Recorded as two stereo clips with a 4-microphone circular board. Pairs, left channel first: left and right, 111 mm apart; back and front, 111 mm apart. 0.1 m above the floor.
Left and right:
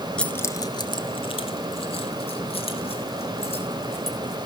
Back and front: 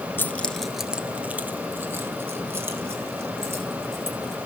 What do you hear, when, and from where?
0.2 s keys jangling: 155° left, 0.8 m; by 4.4 s 65° left, 4.5 m